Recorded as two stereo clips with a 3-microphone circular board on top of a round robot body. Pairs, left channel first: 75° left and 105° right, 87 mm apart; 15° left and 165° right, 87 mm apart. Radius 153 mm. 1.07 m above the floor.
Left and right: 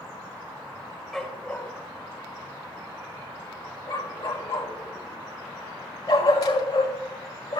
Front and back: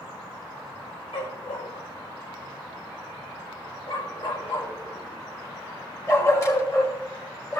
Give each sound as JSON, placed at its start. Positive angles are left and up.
{"t": 1.1, "sound": "a dog barking", "azimuth_deg": -10, "distance_m": 1.8}